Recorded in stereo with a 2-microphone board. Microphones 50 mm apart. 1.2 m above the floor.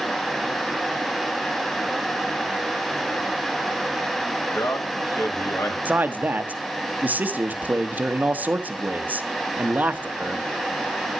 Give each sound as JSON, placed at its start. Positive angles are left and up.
{"t": 4.5, "sound": "a man speaking", "side_deg": 80, "distance_m": 3.0}
{"t": 5.8, "sound": "a man speaking", "side_deg": -35, "distance_m": 1.3}